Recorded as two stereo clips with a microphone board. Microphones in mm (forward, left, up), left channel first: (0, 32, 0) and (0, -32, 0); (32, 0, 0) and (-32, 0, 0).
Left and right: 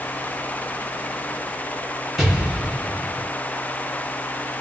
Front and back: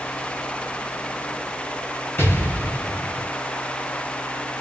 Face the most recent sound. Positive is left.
turn(degrees=-5)